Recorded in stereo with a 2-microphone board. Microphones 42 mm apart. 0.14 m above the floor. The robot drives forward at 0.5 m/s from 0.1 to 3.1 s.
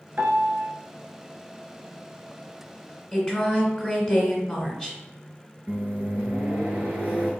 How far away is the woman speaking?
About 1.2 m.